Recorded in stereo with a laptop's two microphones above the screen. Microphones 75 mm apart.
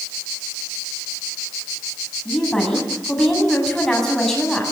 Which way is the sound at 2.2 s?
5° left (ahead or behind).